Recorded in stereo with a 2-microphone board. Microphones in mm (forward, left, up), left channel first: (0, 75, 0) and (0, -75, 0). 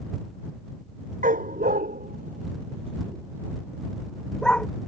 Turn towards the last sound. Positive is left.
turn(degrees=5)  # may be behind; listen again after turning